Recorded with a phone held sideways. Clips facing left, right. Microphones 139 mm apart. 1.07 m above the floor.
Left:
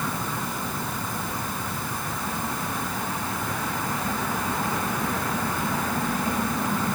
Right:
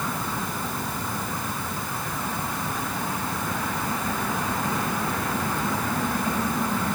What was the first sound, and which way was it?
Only background noise.